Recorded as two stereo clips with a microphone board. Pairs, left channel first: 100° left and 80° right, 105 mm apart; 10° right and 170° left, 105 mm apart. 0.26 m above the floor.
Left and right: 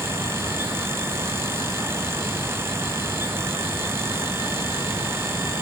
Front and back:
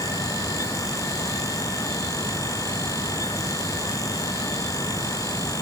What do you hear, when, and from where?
Only background noise.